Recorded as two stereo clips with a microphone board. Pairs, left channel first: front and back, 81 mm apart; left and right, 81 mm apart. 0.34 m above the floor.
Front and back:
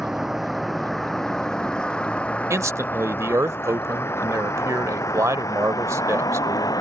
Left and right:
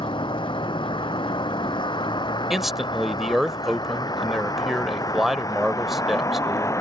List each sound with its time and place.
0.0 s a vehicle: 95° left; by 6.8 s 40° left
2.5 s a man speaking: 175° right